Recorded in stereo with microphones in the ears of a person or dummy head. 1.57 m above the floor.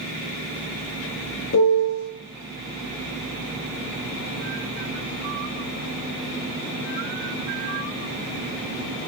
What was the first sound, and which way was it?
A piano, 65° left (ahead or behind).